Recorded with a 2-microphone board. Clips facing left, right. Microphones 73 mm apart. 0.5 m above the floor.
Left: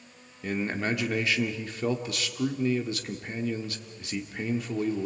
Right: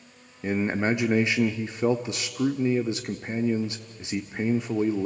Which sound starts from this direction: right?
A man speaking, at 0.4 s.